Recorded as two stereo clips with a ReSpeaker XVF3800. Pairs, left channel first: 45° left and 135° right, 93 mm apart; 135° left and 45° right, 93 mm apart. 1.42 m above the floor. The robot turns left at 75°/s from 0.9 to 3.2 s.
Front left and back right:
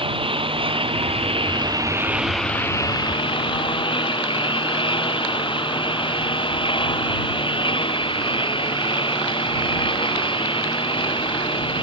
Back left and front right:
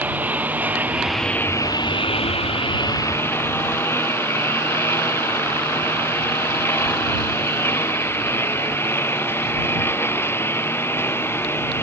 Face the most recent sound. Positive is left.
turn(degrees=70)